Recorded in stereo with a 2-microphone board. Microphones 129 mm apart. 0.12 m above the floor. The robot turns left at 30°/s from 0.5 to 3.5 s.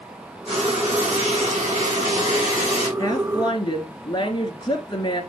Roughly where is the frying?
Ahead right.